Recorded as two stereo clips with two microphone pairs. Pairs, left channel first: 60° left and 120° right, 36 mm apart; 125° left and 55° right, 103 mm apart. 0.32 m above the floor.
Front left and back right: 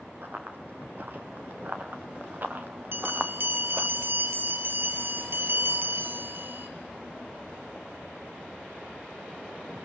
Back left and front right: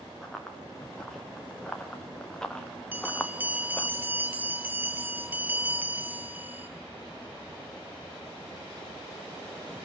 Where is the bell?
130° right, 2 m.